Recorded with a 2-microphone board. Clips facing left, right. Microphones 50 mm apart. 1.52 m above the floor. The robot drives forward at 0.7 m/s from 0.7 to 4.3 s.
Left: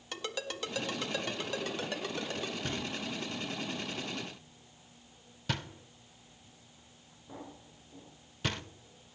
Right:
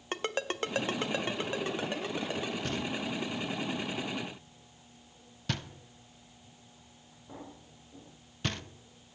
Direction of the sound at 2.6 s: Centre (ahead or behind).